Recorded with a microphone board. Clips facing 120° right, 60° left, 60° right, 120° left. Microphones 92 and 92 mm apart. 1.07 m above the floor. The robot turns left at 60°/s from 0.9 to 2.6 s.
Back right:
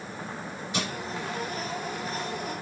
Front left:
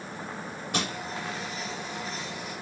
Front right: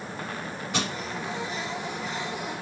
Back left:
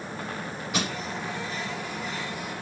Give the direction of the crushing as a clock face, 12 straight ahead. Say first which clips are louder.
Front left 1 dB, even; 11 o'clock.